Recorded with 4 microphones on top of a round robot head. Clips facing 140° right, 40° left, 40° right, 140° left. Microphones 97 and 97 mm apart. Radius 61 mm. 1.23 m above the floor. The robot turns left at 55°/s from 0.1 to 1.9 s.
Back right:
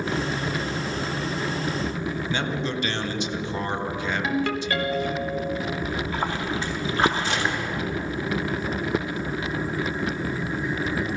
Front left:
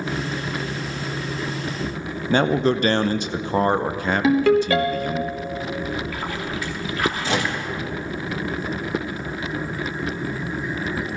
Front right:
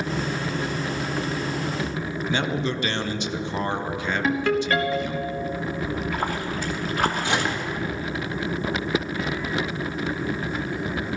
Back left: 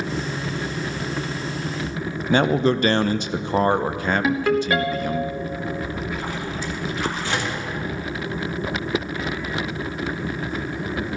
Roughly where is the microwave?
Ahead left.